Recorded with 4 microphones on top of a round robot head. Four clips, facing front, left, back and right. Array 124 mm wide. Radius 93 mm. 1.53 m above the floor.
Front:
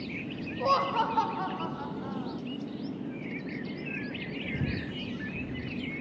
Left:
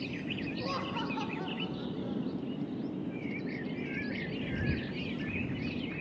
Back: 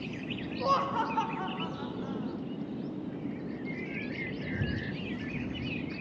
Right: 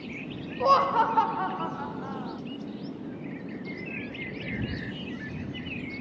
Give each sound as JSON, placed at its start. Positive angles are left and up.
{"t": 0.6, "sound": "laughter", "azimuth_deg": -80}